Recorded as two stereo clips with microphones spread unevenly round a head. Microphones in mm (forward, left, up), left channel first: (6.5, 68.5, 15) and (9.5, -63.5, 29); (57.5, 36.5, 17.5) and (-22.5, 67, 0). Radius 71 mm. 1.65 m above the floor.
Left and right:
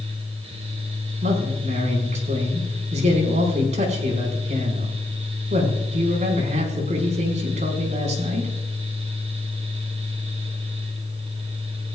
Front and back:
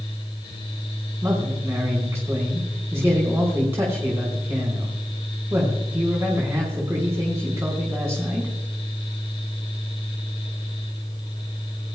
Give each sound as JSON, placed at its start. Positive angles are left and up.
{"t": 0.0, "sound": "a fan", "azimuth_deg": -45, "distance_m": 4.5}
{"t": 1.2, "sound": "a man speaking", "azimuth_deg": -130, "distance_m": 5.5}